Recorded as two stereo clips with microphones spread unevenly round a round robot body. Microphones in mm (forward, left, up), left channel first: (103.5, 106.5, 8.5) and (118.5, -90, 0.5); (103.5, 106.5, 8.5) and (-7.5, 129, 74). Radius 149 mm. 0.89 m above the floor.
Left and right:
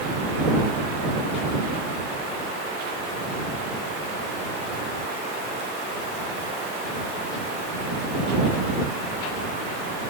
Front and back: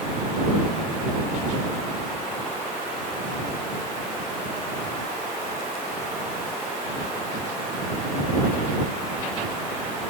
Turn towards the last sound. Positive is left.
No sound to turn to.